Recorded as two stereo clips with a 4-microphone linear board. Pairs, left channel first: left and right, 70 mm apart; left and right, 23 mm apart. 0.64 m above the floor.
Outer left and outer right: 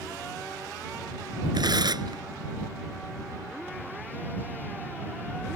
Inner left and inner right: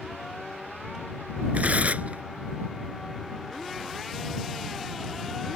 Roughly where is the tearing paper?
Right.